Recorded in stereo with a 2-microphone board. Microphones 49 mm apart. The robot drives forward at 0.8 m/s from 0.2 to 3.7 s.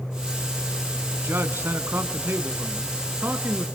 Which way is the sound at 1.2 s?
50° right (ahead or behind).